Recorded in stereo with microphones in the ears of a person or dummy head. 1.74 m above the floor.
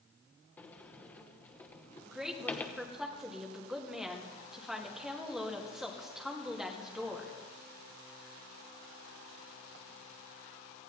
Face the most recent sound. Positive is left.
turn(degrees=-5)  # may be behind; listen again after turning